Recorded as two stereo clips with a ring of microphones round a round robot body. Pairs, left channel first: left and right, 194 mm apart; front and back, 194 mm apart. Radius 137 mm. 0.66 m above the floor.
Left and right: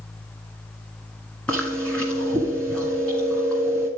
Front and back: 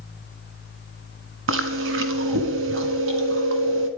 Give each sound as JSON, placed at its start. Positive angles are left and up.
{"t": 1.5, "sound": "chewing", "azimuth_deg": 175, "distance_m": 1.4}